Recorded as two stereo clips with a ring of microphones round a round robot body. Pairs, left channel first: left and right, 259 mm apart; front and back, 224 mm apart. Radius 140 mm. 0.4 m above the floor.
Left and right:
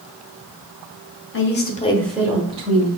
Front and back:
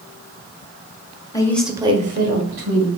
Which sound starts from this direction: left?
A woman speaking, at 1.3 s.